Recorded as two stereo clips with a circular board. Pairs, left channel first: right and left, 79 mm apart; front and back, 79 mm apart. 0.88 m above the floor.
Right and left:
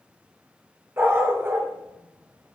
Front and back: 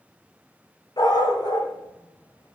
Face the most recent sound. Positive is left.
turn(degrees=30)